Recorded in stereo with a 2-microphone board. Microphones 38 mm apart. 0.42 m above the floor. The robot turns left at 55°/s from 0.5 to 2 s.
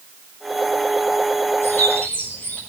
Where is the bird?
70° left (ahead or behind), 5 m; by 2.6 s 50° left (ahead or behind), 5 m.